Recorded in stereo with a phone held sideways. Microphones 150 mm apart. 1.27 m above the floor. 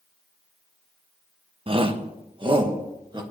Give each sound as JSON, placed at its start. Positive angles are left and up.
{"t": 1.7, "sound": "a shout", "side_deg": -35, "distance_m": 1.0}